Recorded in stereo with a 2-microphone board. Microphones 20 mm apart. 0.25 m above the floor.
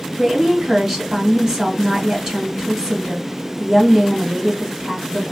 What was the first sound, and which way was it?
A woman speaking, 20° right (ahead or behind).